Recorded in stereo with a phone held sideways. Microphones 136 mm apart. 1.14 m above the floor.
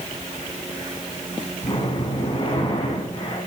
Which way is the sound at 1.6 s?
40° left (ahead or behind).